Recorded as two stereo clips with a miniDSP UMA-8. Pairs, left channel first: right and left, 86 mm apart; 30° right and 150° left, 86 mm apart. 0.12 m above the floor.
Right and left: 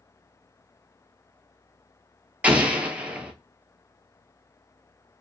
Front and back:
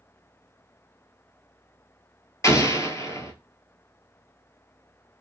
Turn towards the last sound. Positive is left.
turn(degrees=15)